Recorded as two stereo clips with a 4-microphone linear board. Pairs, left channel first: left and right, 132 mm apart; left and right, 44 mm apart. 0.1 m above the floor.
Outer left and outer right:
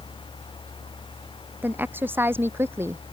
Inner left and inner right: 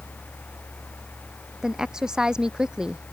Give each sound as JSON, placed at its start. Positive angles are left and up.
{"t": 1.6, "sound": "a woman speaking", "side_deg": -15}